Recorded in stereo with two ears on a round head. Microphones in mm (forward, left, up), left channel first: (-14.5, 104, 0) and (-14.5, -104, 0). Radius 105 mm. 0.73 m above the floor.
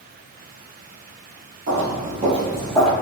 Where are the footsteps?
50° right (ahead or behind), 1.6 m; by 2.9 s 5° left (ahead or behind), 1.4 m.